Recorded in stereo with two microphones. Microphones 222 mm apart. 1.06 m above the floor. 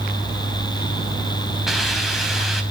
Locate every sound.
1.7 s a hiss: centre (ahead or behind), 3.5 m